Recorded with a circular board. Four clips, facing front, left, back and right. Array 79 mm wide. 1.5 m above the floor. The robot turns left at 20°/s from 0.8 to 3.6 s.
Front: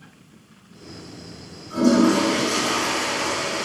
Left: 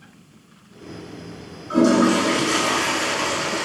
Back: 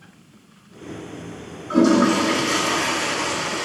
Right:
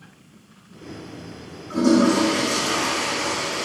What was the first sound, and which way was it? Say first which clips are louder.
A toilet flushing: left 1 dB, back 1 dB; 155° left.